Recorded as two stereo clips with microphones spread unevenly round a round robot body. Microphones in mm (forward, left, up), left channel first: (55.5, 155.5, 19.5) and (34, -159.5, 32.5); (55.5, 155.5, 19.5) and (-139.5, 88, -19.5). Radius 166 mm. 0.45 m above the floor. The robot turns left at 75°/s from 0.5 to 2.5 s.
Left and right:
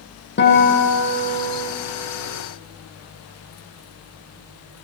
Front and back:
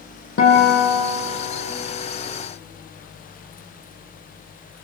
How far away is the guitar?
About 7 m.